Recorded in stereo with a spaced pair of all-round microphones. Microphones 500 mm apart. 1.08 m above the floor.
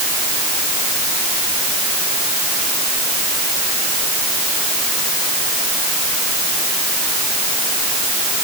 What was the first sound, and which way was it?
Only background noise.